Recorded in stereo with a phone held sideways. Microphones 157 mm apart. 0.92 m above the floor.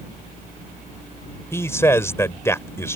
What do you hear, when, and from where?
1.5 s a man speaking: 15° left (ahead or behind)